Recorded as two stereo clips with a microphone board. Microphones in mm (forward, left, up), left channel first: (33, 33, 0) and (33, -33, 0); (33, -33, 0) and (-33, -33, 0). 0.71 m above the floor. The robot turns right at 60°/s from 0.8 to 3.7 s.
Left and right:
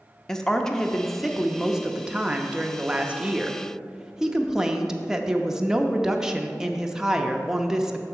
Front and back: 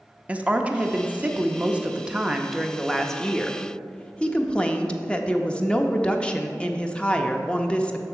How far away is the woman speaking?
About 0.5 m.